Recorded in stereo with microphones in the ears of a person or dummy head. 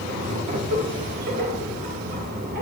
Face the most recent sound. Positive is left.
turn(degrees=-50)  # may be behind; listen again after turning